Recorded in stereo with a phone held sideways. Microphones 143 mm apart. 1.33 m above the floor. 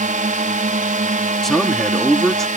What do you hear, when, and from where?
0.0 s a drone: 70° right (ahead or behind)
1.4 s a man speaking: centre (ahead or behind)